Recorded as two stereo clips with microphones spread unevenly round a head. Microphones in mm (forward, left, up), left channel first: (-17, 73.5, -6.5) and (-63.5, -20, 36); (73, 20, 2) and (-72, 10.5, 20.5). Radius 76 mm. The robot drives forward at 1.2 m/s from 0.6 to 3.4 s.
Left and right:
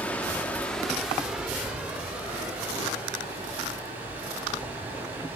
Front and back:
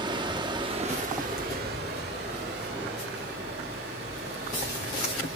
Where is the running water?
170° left, 0.9 m; by 5.4 s straight behind, 4 m.